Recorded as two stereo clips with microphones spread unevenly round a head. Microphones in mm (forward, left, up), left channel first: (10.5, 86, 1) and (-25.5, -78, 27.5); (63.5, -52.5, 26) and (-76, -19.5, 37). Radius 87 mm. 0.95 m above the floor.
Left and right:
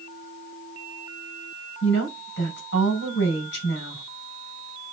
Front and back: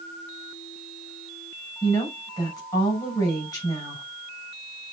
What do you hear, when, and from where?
1.8 s a woman speaking: 55° left, 5.5 m